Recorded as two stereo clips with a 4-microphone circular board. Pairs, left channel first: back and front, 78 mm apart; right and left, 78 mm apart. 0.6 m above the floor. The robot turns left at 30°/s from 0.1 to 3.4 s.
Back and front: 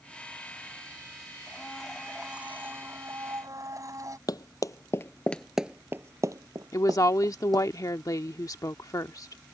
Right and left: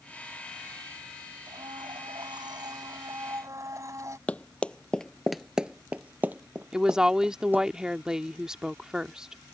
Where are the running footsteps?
160° right; by 7.7 s 25° left.